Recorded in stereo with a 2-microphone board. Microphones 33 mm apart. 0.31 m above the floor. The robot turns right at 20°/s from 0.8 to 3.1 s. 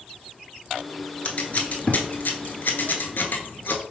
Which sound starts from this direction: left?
Scissors, at 1.2 s.